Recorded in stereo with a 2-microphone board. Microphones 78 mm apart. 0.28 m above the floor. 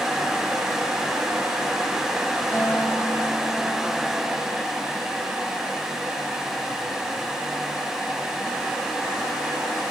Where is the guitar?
35° right (ahead or behind), 3.5 m.